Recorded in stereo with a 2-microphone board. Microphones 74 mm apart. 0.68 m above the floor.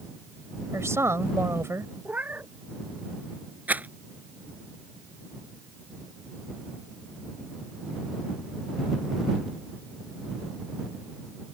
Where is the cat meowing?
25° right (ahead or behind).